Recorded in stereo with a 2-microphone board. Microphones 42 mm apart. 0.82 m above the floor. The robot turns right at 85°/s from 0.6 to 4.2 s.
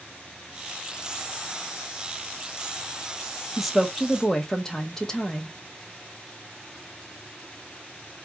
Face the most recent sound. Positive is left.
turn(degrees=15)  # may be behind; listen again after turning